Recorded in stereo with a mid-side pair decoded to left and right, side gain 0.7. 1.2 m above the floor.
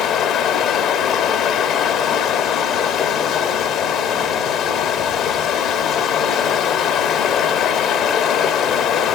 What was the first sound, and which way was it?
Running water, 50° left.